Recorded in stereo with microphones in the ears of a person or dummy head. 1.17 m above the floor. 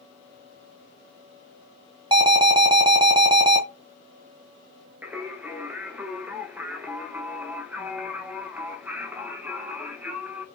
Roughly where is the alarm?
Centre.